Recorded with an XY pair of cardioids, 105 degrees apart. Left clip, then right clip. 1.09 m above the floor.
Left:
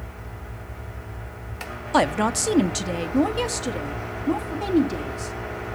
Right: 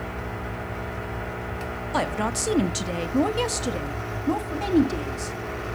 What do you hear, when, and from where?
1.9 s a woman speaking: 40° left, 0.6 m; by 5.4 s 15° right, 2 m